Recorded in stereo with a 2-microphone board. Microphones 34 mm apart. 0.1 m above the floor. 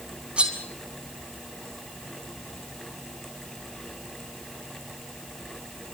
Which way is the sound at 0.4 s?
30° right (ahead or behind).